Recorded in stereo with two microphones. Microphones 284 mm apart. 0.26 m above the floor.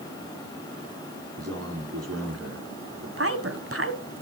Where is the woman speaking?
50° right (ahead or behind), 1.4 m.